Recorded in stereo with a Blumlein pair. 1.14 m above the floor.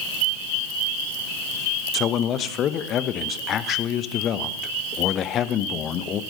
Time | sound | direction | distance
1.9 | a man speaking | 30° left | 0.9 m